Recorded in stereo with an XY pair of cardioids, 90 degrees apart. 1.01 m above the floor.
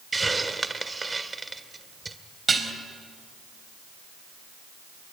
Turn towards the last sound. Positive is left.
turn(degrees=-35)